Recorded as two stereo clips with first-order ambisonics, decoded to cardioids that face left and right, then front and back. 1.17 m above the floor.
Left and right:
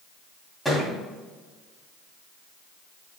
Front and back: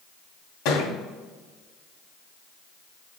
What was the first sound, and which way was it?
A thud, straight ahead.